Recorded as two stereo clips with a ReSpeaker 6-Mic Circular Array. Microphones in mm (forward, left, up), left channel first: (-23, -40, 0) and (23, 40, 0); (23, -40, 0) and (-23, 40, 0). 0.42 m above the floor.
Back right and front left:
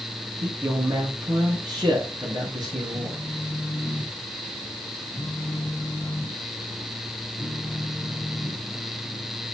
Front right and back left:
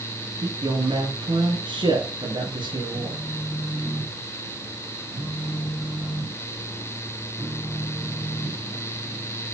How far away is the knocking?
I don't hear knocking.